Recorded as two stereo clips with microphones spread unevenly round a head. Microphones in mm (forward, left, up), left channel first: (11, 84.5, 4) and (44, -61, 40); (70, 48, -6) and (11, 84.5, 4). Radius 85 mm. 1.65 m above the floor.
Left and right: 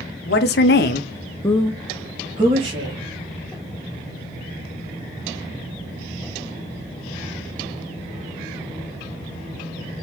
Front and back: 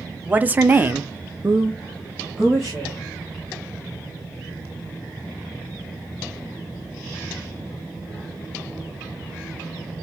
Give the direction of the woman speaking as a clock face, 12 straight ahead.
9 o'clock.